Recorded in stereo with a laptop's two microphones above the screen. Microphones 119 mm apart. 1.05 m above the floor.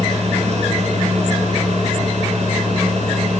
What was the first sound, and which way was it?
A fan, 55° right (ahead or behind).